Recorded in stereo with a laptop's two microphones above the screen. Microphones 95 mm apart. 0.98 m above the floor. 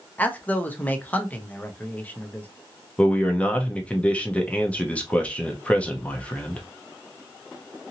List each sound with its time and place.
0.2 s a man speaking: 15° left (ahead or behind), 0.8 m
3.0 s a man speaking: 15° left (ahead or behind), 0.7 m